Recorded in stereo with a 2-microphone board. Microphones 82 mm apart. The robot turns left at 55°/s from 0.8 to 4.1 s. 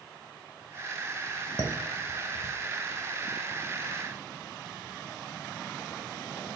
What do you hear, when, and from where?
1.6 s dishes clattering: 55° left (ahead or behind), 0.9 m; by 2.5 s 45° left (ahead or behind), 0.9 m